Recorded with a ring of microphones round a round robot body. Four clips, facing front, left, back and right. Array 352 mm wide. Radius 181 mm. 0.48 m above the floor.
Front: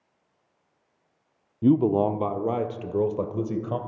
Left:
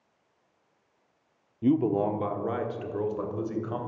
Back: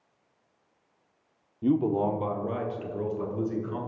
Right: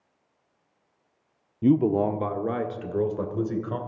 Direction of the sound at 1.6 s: 35° right.